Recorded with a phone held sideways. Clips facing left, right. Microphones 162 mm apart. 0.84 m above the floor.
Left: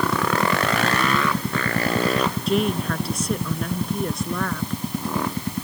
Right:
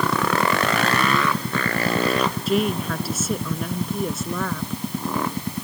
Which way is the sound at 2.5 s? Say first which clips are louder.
Even; centre (ahead or behind).